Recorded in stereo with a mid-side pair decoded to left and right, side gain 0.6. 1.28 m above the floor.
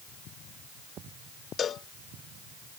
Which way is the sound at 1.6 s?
40° left.